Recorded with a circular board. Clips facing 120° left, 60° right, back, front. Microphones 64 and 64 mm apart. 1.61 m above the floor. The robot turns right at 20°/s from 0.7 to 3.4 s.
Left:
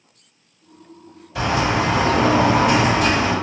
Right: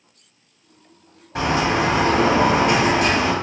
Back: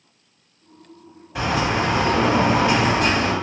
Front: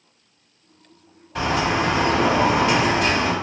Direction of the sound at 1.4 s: 95° right.